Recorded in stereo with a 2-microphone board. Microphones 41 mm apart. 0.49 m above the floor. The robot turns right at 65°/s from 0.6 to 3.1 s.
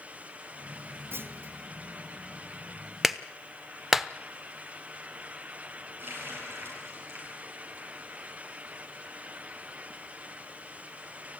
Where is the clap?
5° right (ahead or behind), 0.8 m; by 4.1 s 10° right (ahead or behind), 0.8 m.